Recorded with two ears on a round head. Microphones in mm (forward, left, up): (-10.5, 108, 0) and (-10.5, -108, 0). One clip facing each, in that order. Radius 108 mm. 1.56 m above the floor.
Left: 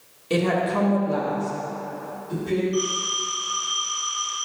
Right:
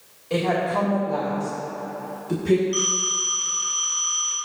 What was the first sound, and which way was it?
A woman speaking, 45° left (ahead or behind).